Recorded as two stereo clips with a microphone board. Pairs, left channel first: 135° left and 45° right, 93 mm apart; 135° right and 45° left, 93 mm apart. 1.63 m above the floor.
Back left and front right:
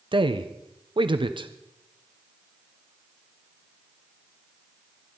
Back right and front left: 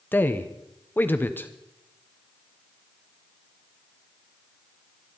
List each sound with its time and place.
0.1 s a man speaking: 65° right, 0.8 m